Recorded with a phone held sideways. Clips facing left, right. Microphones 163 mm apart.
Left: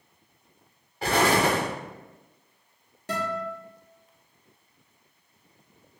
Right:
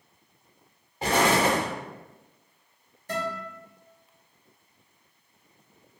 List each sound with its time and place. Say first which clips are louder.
1.0 s an explosion: even; 20° right (ahead or behind), 1.0 m
3.1 s a guitar: left 2 dB; 75° left (ahead or behind), 1.0 m